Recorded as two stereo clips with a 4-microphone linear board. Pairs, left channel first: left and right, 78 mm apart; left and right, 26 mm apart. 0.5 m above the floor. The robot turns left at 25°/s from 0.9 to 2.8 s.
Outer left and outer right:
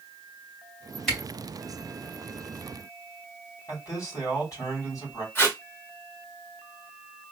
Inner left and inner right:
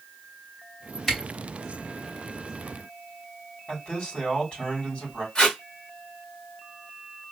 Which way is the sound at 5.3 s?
30° left (ahead or behind).